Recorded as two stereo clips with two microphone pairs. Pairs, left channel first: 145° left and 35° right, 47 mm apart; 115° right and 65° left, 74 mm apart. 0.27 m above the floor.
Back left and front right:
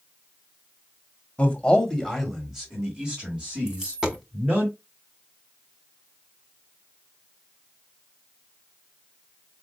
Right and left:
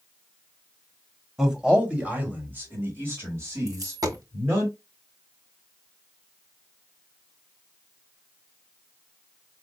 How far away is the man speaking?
About 1.6 m.